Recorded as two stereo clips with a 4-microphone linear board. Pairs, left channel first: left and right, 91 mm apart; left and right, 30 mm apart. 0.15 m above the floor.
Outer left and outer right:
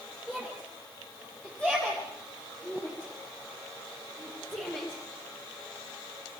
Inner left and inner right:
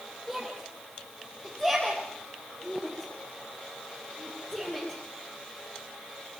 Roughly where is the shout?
Centre.